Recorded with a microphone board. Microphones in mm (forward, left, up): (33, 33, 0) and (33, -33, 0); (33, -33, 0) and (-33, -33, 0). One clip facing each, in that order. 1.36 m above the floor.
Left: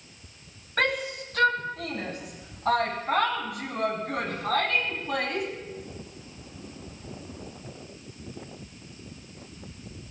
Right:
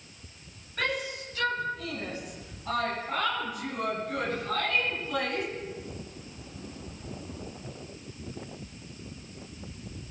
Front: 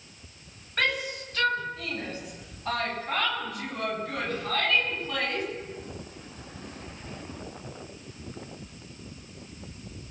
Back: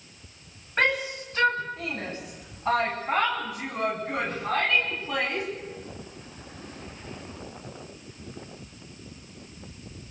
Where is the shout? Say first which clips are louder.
Left 4 dB, back 3 dB; 110° left, 10 m; by 5.5 s 100° left, 13 m.